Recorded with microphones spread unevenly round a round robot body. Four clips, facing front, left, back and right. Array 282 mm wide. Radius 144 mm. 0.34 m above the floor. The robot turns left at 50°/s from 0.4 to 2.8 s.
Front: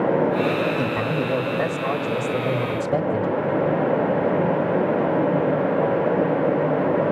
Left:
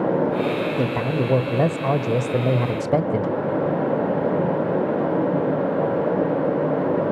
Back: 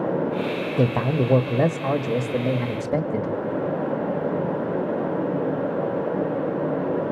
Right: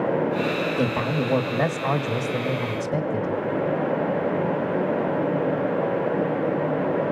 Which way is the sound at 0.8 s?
Straight behind.